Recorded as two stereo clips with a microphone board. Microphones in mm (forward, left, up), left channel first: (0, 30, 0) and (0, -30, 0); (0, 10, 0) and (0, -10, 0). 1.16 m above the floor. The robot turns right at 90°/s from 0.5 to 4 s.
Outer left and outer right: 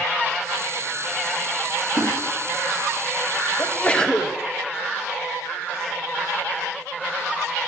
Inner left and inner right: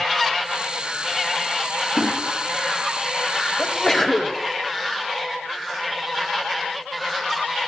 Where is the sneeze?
125° left, 0.9 m; by 4.4 s 165° left, 0.9 m.